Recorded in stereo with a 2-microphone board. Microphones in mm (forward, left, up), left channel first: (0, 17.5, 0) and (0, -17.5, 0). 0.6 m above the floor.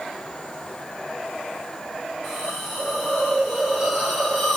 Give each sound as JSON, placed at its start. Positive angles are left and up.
{"t": 2.2, "sound": "a hiss", "side_deg": -10, "distance_m": 1.5}